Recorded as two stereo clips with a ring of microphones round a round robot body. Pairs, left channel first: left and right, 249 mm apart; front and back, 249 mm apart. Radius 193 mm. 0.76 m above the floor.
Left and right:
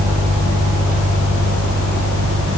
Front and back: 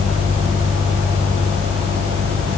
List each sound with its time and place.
Only background noise.